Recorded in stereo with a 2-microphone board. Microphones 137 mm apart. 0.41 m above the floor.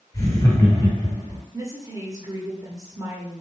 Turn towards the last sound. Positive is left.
turn(degrees=-25)  # may be behind; listen again after turning